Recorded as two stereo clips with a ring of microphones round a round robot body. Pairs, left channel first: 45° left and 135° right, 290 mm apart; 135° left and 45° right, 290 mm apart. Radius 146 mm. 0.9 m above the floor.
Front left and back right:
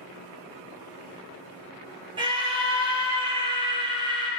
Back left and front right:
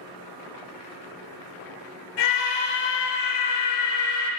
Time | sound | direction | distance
2.2 | a scream | 150° left | 2.5 m